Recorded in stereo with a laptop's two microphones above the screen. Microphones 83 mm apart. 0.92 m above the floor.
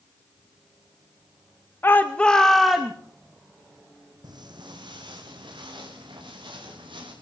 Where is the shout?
30° left (ahead or behind), 0.7 m; by 3.0 s 5° right (ahead or behind), 1.0 m.